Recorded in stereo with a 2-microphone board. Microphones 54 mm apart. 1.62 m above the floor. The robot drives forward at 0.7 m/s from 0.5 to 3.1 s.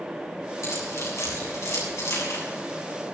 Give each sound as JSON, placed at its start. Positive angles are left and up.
{"t": 0.6, "sound": "keys jangling", "side_deg": 70, "distance_m": 8.0}